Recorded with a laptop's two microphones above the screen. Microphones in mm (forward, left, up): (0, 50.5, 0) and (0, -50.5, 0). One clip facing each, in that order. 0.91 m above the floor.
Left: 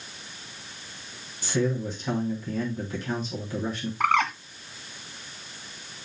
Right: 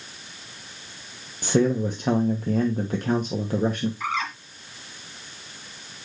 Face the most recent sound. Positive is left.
turn(degrees=65)  # may be behind; listen again after turning